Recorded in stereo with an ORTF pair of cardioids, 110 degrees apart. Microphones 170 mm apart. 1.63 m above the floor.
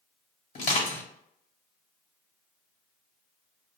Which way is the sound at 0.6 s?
50° left.